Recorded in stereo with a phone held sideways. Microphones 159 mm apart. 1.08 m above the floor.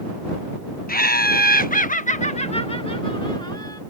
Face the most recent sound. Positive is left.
turn(degrees=25)  # may be behind; listen again after turning